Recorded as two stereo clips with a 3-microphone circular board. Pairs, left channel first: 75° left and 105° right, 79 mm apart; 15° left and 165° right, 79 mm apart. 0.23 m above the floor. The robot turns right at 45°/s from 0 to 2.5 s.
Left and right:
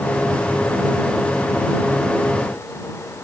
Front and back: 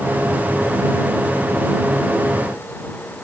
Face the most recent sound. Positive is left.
No sound to turn to.